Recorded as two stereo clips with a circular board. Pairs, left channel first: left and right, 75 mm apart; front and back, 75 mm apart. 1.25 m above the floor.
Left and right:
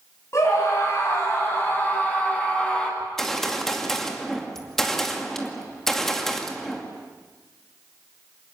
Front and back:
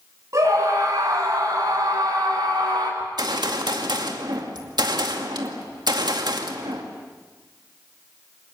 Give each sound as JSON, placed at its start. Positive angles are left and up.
{"t": 0.3, "sound": "a scream", "azimuth_deg": 135, "distance_m": 9.0}
{"t": 3.0, "sound": "a gunshot", "azimuth_deg": 175, "distance_m": 2.5}